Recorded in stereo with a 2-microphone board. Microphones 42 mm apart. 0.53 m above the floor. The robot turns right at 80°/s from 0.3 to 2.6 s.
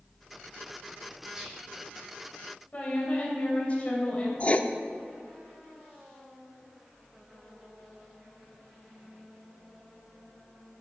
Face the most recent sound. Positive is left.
turn(degrees=35)  # may be behind; listen again after turning